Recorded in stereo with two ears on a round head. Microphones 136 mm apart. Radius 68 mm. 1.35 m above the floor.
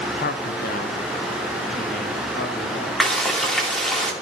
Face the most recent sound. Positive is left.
turn(degrees=5)  # may be behind; listen again after turning